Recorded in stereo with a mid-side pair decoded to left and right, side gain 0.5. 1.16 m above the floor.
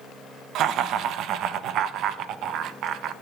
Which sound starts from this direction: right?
Laughter, at 0.6 s.